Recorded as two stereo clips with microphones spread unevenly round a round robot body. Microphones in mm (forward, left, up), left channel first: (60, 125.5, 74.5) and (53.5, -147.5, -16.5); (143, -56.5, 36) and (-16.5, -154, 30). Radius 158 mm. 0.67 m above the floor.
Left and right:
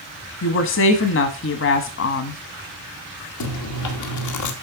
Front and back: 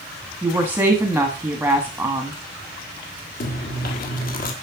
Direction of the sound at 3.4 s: 65° left.